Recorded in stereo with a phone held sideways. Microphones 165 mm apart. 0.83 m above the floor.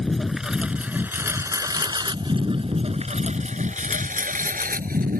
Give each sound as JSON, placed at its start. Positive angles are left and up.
{"t": 0.0, "sound": "a lawn mower", "side_deg": 5}